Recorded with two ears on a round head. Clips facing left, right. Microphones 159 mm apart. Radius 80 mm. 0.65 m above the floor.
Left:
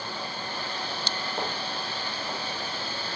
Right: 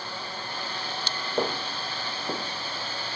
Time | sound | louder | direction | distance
1.4 | footsteps | right 7 dB | 70° right (ahead or behind) | 4.5 m